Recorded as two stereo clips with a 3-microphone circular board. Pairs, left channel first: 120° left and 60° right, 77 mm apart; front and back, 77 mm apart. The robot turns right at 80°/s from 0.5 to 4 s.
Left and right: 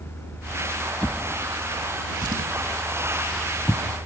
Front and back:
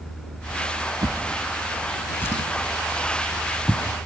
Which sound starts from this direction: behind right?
A drawer, at 1.0 s.